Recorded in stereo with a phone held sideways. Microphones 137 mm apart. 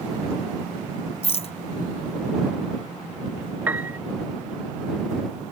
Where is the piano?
10° right (ahead or behind).